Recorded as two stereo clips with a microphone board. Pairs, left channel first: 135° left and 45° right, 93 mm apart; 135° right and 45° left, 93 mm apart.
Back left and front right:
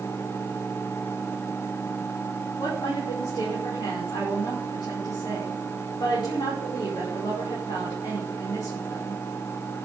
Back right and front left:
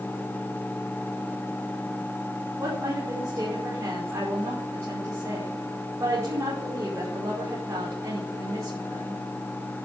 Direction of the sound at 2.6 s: 105° left.